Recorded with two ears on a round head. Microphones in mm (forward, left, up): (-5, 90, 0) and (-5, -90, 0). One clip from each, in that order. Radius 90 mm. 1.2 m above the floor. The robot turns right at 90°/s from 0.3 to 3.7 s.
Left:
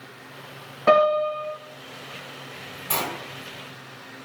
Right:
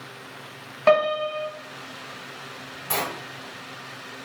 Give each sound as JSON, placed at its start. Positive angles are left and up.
{"t": 0.9, "sound": "a piano", "azimuth_deg": -90, "distance_m": 0.8}
{"t": 2.9, "sound": "a sliding door", "side_deg": -5, "distance_m": 1.1}